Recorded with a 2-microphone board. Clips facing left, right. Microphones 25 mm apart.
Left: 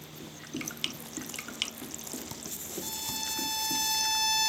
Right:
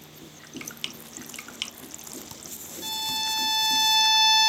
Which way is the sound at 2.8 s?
40° right (ahead or behind).